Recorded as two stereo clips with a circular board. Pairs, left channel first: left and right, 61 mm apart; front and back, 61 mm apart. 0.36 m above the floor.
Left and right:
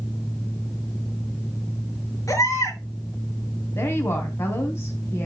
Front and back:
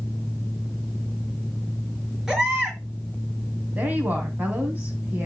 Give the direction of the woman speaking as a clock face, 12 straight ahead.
8 o'clock.